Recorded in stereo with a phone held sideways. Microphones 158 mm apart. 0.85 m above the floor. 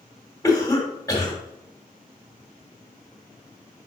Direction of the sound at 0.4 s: 25° left (ahead or behind).